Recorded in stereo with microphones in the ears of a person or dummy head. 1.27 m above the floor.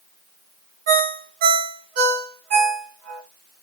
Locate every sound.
0.9 s a ringtone: 45° right (ahead or behind), 0.9 m